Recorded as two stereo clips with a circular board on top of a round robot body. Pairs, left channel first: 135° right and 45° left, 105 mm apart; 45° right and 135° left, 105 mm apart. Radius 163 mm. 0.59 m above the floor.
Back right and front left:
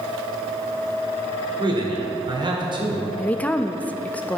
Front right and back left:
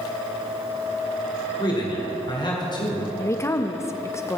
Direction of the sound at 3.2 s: 70° right.